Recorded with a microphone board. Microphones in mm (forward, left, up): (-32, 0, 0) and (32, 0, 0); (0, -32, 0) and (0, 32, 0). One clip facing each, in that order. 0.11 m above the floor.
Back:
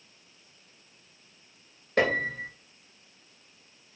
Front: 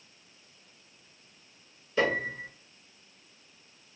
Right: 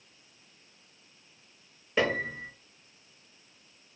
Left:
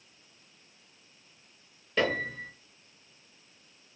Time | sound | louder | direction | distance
2.0 | a piano | back 2 dB, right 1 dB | 165° right | 1.0 m